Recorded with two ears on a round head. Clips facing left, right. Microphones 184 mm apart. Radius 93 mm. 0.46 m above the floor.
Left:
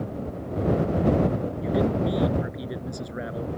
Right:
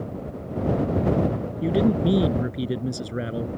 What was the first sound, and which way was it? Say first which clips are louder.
A man speaking: right 4 dB; 40° right (ahead or behind).